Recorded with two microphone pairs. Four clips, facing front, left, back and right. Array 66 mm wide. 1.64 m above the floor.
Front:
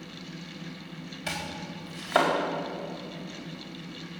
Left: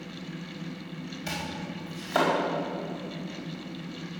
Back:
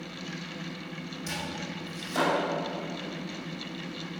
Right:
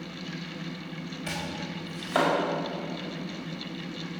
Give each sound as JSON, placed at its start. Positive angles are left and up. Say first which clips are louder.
{"t": 1.3, "sound": "chopping", "louder": "even, front 1 dB", "azimuth_deg": -5, "distance_m": 4.5}